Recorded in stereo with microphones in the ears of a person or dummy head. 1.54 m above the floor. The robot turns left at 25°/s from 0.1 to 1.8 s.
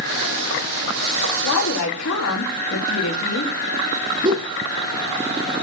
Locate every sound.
1.4 s a woman speaking: 80° left, 4 m; by 3.5 s 85° left, 4 m
4.2 s a whoosh: 25° right (ahead or behind), 1.2 m